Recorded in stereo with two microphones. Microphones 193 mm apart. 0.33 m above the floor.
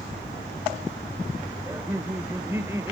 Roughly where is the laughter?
Centre.